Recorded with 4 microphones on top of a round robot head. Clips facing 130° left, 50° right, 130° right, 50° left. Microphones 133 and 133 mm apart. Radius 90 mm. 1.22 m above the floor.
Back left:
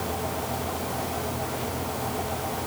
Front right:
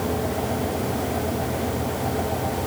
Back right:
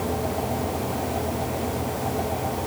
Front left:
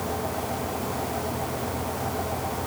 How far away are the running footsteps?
No running footsteps in this recording.